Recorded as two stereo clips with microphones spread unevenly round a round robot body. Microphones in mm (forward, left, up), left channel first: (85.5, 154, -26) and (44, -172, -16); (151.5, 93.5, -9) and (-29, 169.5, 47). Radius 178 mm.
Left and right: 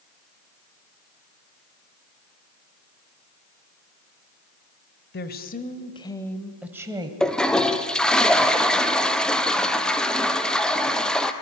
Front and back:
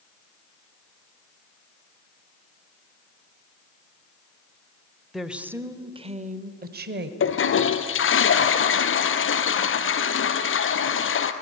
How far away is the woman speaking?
About 1.3 m.